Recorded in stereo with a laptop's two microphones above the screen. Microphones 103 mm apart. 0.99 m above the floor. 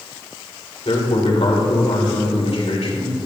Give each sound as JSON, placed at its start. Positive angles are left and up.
{"t": 0.8, "sound": "a man speaking", "side_deg": 80, "distance_m": 2.5}